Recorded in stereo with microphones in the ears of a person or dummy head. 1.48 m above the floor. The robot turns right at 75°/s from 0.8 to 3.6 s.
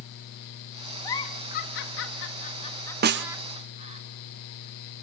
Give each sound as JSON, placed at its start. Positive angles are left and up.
{"t": 1.0, "sound": "a giggle", "side_deg": 20, "distance_m": 1.3}
{"t": 3.0, "sound": "a snare drum", "side_deg": -45, "distance_m": 0.8}